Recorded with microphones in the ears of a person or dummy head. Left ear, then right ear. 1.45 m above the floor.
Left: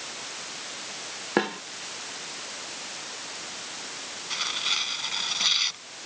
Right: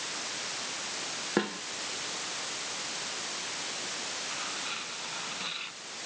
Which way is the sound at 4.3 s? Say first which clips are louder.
Left 8 dB; 85° left.